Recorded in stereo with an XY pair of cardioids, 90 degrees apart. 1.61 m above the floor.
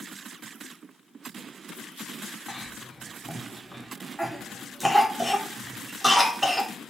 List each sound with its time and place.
2.5 s a cough: 5° right, 4.5 m